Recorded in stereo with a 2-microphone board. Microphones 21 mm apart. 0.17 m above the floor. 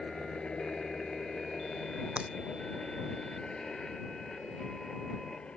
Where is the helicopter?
45° left (ahead or behind); by 5.6 s 60° left (ahead or behind).